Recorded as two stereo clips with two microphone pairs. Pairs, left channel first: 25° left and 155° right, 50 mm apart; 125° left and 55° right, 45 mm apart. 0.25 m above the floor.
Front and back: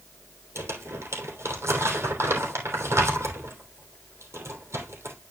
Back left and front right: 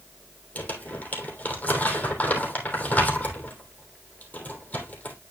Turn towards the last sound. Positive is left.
turn(degrees=-175)